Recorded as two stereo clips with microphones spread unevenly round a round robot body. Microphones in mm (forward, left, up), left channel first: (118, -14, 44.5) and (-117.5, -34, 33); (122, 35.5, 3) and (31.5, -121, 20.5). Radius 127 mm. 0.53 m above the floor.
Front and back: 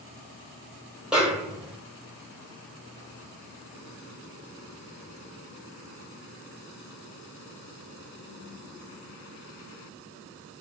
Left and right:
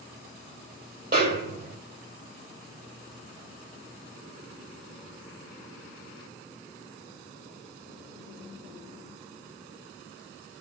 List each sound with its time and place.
1.1 s a snare drum: 90° right, 3 m